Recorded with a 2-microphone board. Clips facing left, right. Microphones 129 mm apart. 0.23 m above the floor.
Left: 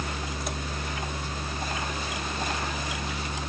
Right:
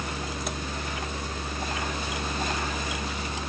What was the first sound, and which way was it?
Only background noise.